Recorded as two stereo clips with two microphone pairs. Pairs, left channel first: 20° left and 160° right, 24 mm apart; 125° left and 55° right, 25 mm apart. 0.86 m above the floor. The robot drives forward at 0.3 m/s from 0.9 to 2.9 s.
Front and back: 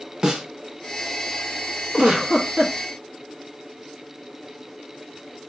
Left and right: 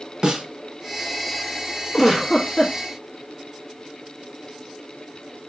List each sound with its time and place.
0.2 s a snare drum: 115° right, 1.2 m
1.9 s a giggle: 145° right, 1.2 m; by 2.8 s 155° right, 1.4 m